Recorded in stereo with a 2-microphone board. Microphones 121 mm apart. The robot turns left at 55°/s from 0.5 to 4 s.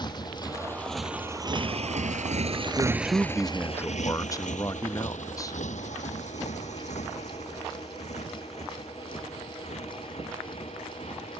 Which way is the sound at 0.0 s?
35° left (ahead or behind).